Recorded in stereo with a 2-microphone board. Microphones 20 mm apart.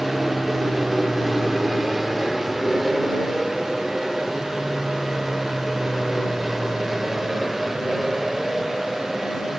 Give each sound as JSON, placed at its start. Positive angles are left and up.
{"t": 0.0, "sound": "an aircraft", "side_deg": -5}